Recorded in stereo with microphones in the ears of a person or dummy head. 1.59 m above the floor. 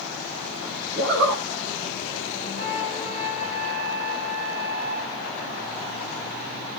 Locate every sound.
0.9 s a zipper: 65° right (ahead or behind), 2 m
2.6 s a flute: 60° right (ahead or behind), 2.5 m